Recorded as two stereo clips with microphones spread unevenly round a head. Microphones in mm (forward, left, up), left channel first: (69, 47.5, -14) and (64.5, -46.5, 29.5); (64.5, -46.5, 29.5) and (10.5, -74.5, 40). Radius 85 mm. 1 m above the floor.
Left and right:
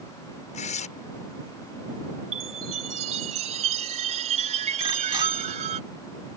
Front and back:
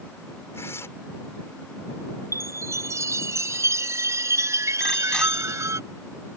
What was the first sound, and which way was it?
Tearing paper, 100° left.